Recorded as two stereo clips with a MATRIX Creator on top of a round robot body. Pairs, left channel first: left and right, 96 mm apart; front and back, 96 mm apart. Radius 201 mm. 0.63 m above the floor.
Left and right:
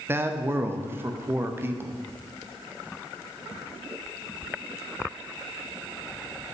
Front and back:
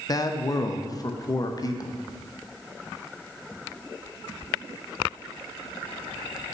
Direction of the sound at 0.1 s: 30° right.